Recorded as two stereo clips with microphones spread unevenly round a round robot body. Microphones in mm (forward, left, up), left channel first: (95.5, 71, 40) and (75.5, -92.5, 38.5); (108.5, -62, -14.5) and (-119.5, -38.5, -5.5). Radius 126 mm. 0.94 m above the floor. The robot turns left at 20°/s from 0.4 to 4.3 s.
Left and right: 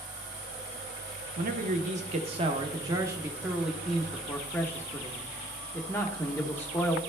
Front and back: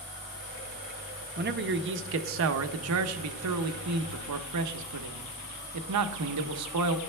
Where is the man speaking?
140° right, 0.6 m; by 7.0 s 165° left, 0.6 m.